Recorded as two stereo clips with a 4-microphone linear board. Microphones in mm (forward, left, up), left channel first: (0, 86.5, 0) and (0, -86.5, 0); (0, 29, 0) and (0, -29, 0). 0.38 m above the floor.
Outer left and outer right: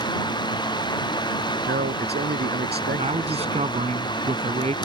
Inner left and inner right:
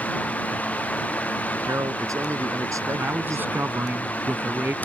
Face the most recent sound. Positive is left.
turn(degrees=-40)  # may be behind; listen again after turning